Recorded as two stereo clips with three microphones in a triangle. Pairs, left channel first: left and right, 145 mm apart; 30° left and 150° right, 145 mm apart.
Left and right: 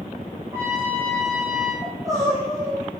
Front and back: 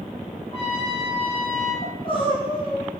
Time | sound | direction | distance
0.5 | a trumpet | 15° right | 6 m
1.8 | crying | 25° right | 6 m